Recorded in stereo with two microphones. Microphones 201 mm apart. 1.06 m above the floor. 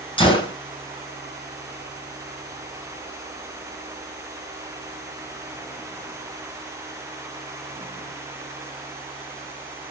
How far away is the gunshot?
About 3 m.